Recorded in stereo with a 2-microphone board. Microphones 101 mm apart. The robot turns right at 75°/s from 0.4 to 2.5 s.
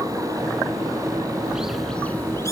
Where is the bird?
10° right (ahead or behind), 2.0 m; by 2.5 s 30° left (ahead or behind), 2.0 m.